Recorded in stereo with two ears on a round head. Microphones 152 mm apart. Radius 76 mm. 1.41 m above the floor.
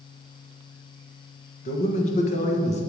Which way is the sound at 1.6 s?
45° left (ahead or behind).